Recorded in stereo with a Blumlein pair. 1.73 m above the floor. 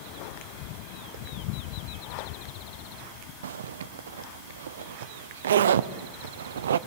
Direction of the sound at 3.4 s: 65° right.